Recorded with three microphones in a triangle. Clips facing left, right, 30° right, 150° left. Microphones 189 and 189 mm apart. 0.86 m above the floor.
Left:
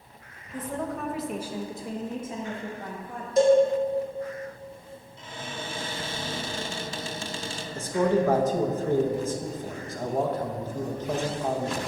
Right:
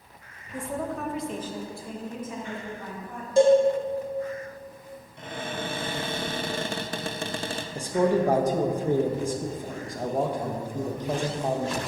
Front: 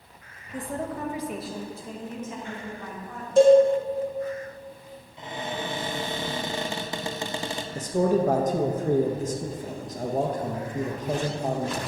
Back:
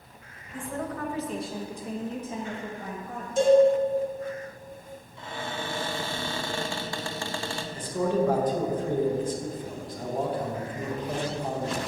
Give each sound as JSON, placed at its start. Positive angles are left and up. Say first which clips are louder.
{"t": 0.5, "sound": "a woman speaking", "louder": "right 1 dB, front 2 dB", "azimuth_deg": -15, "distance_m": 0.8}
{"t": 3.4, "sound": "a cowbell", "louder": "right 1 dB, front 4 dB", "azimuth_deg": -30, "distance_m": 1.7}
{"t": 5.2, "sound": "a cupboard door", "louder": "right 5 dB, front 3 dB", "azimuth_deg": -100, "distance_m": 0.5}
{"t": 7.8, "sound": "a man speaking", "louder": "right 1 dB, front 3 dB", "azimuth_deg": -15, "distance_m": 0.6}